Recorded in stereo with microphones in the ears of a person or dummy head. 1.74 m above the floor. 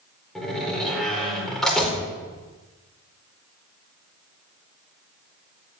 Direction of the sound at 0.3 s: 5° left (ahead or behind).